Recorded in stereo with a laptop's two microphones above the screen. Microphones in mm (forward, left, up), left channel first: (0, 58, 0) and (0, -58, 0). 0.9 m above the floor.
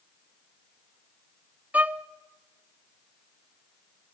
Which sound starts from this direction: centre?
A violin, at 1.7 s.